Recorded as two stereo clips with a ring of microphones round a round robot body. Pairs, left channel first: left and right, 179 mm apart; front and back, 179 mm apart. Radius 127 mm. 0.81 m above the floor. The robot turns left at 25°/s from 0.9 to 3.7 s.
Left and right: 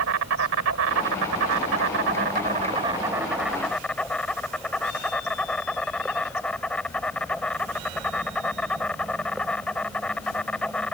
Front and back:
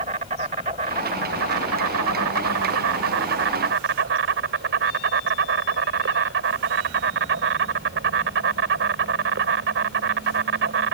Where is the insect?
115° right; by 10.9 s 175° left.